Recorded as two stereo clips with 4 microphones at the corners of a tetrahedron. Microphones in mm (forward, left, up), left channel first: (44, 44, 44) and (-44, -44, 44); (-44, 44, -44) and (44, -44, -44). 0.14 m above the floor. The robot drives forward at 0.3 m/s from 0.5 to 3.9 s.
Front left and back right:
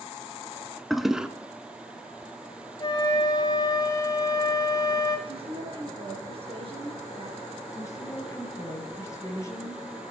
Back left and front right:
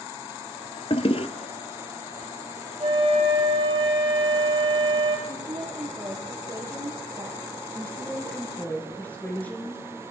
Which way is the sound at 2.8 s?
5° right.